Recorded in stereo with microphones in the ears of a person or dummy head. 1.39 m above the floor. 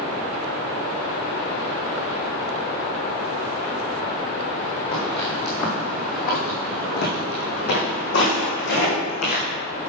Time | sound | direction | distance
4.9 | footsteps | 25° left (ahead or behind) | 2.5 m